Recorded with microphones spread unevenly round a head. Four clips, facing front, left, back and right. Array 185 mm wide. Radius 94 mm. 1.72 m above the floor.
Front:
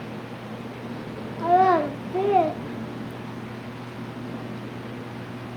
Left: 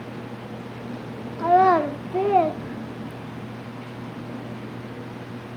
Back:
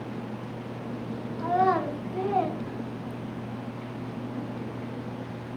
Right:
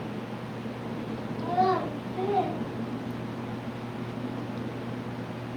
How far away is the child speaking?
About 3 m.